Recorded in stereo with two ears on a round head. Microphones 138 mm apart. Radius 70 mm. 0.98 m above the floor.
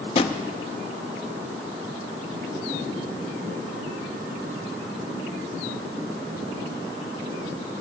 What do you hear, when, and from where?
0.1 s a drawer: 35° left (ahead or behind), 0.7 m